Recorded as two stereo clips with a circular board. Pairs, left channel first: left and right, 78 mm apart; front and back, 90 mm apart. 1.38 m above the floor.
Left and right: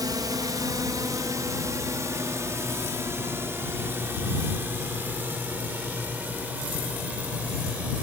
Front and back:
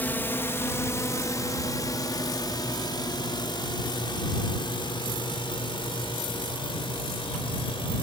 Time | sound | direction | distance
0.0 | a drone | 65° right | ?